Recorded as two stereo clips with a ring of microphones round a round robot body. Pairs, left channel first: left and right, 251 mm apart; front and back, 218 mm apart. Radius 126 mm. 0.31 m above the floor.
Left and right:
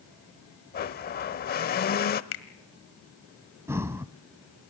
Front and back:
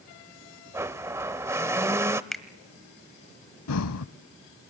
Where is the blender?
110° left, 0.8 m.